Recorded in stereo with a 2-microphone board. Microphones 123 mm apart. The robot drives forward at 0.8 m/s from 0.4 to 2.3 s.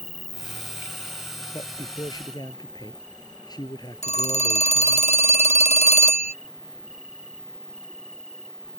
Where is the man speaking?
30° left (ahead or behind).